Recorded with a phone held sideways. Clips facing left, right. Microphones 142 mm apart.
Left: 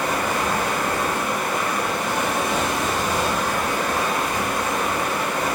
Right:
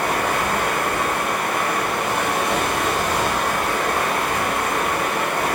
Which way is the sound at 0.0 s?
70° right (ahead or behind).